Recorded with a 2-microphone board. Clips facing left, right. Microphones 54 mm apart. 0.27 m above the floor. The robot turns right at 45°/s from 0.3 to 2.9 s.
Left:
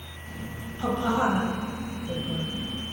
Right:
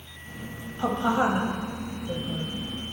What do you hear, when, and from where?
0.8 s a woman speaking: 25° right (ahead or behind), 1.5 m; by 2.5 s 5° right (ahead or behind), 1.5 m